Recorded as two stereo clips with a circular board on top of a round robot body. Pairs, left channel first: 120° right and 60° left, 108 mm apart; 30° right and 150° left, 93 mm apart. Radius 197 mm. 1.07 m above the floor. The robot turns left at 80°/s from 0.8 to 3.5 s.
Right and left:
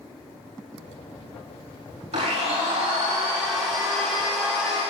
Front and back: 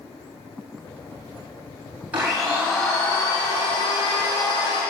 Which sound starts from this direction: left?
A blender, at 2.1 s.